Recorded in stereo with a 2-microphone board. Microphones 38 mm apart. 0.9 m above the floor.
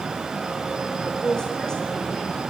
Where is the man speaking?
20° left (ahead or behind), 4.5 m; by 2.4 s 25° left (ahead or behind), 6.5 m.